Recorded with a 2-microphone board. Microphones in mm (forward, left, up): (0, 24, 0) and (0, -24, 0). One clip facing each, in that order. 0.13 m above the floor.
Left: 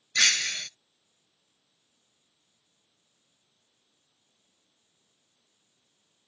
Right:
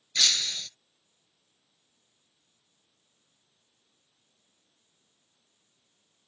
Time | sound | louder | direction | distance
0.1 | breaking glass | left 4 dB | 55° left (ahead or behind) | ?